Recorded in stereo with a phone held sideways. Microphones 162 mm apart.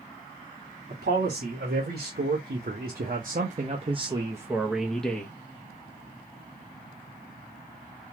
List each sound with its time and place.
0.9 s a man speaking: 75° right (ahead or behind), 1.9 m; by 5.3 s 10° left (ahead or behind), 1.1 m